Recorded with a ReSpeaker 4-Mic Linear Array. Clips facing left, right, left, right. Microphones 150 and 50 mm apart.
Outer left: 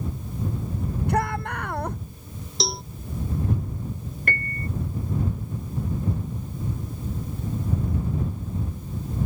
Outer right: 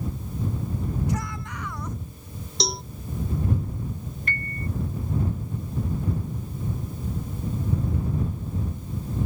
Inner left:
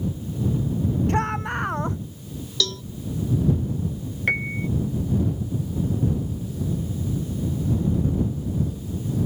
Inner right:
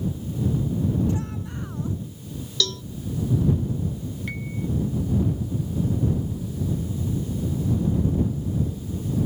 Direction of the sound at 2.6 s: Centre (ahead or behind).